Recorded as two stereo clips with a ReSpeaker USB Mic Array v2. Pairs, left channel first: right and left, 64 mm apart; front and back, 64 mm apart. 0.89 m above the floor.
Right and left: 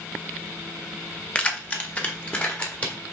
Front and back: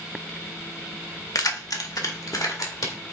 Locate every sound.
1.4 s keys jangling: 20° right, 0.8 m; by 3.0 s 25° right, 2.5 m